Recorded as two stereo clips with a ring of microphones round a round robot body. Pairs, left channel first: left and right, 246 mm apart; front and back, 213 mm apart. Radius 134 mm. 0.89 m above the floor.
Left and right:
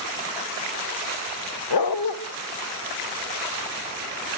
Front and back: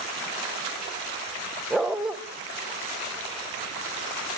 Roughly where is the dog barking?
Left.